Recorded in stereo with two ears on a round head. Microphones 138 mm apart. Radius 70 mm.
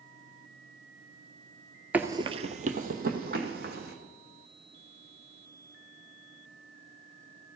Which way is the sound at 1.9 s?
10° right (ahead or behind).